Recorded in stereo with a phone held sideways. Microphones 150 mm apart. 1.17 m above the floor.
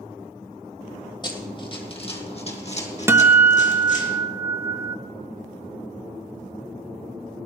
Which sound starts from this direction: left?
Running footsteps, at 1.2 s.